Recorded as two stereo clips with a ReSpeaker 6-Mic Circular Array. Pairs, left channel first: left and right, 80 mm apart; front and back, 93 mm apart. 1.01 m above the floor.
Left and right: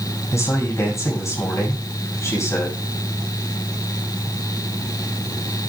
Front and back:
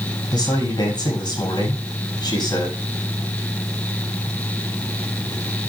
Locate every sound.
0.3 s a man speaking: 35° left, 6 m